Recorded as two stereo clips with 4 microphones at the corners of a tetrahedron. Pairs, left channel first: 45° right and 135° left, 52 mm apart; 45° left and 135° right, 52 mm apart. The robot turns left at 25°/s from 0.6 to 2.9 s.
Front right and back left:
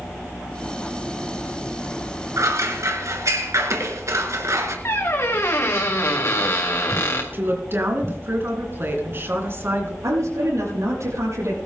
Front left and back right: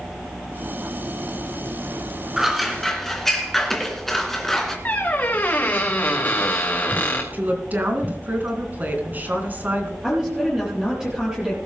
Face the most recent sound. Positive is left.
turn(degrees=150)